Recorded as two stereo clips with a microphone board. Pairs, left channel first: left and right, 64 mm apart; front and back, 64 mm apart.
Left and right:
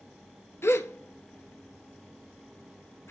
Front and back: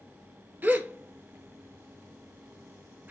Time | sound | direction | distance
0.6 | a gasp | 130° left | 0.7 m